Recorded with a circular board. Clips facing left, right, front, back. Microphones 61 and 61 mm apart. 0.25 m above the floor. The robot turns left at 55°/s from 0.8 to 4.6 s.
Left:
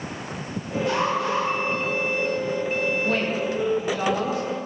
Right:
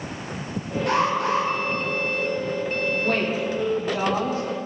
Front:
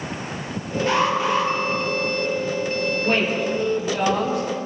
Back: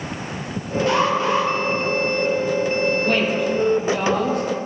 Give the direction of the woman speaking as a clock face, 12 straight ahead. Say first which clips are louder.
Even, back 2 dB; 2 o'clock.